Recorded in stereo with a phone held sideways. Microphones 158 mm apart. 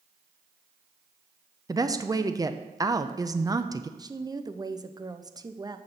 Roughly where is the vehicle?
No vehicle in this recording.